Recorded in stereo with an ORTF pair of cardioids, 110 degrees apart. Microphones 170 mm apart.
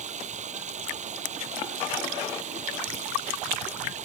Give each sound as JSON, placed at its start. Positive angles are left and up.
{"t": 0.0, "sound": "running water", "azimuth_deg": -45}